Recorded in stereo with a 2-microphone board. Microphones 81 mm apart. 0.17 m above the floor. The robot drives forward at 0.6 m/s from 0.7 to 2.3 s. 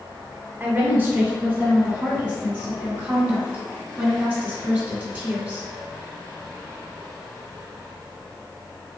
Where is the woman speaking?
25° right (ahead or behind), 1.1 m; by 5.7 s 20° right (ahead or behind), 1.4 m.